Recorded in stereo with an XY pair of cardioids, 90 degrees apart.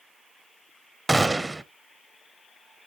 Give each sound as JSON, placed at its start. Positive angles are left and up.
{"t": 1.1, "sound": "a gunshot", "azimuth_deg": -20, "distance_m": 0.5}